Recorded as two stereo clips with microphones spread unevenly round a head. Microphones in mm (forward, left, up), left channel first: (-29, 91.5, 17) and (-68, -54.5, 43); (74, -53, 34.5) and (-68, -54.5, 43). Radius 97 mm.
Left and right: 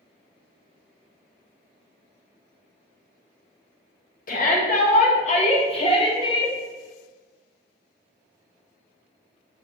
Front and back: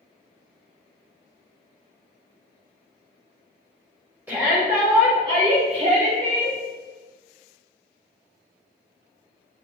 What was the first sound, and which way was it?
A shout, 100° left.